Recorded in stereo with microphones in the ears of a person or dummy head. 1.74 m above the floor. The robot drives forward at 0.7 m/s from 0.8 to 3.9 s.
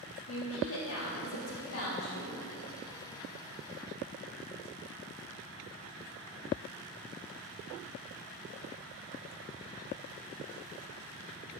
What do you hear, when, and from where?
0.3 s a woman speaking: 75° left (ahead or behind), 3 m; by 2.3 s 80° left, 3 m